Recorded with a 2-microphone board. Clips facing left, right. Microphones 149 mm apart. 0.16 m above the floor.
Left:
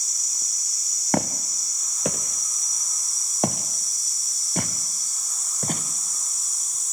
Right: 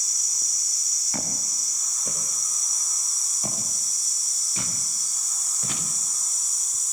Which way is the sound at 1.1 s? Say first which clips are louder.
Left 11 dB; 70° left (ahead or behind).